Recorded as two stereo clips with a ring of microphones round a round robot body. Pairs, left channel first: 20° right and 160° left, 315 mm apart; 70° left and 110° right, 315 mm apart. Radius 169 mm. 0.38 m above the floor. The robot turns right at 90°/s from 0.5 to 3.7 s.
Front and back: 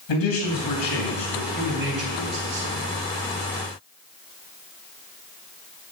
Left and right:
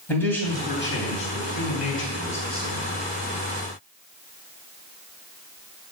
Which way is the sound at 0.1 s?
15° right.